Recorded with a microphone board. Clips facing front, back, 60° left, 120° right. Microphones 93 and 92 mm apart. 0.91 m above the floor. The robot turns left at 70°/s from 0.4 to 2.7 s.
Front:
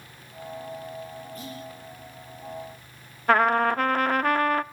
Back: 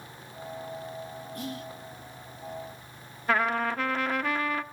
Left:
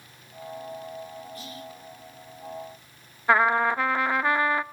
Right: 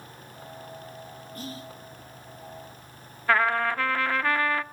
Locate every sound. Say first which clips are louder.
1.4 s whispering: back 5 dB, right 2 dB; 160° right, 2 m; by 1.7 s straight behind, 2 m
3.3 s a trumpet: front 6 dB, left 3 dB; 5° right, 0.6 m